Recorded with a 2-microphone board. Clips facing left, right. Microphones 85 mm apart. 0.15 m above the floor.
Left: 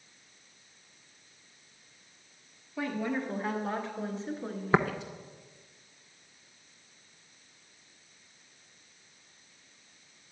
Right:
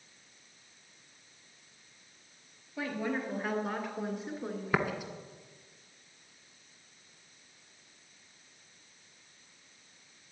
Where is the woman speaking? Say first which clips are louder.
Left 2 dB; 5° right (ahead or behind), 2.5 m; by 5.1 s 10° right (ahead or behind), 1.6 m.